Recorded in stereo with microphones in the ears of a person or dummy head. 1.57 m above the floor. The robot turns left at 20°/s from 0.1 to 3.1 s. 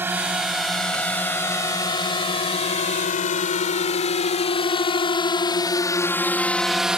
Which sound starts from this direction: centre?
A drone, at 0.0 s.